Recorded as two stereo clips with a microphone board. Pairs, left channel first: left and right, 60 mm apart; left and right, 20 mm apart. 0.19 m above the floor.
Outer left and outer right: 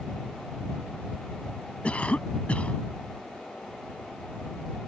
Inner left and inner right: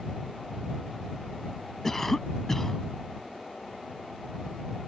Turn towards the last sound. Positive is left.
turn(degrees=20)  # may be behind; listen again after turning